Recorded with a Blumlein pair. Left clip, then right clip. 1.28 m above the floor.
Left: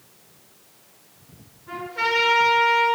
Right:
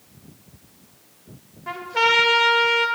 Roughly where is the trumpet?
Ahead right.